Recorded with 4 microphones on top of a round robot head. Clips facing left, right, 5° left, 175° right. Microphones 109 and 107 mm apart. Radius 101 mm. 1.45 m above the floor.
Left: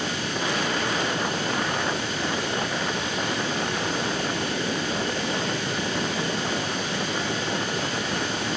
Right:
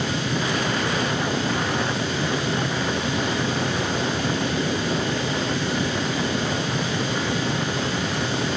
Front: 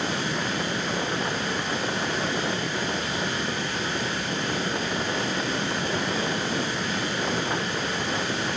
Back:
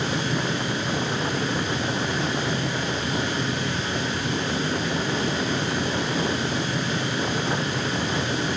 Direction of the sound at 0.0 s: 95° right.